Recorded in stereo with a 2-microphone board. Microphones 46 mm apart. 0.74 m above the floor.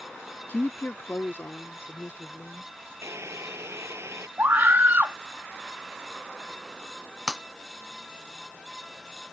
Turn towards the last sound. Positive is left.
turn(degrees=-15)  # may be behind; listen again after turning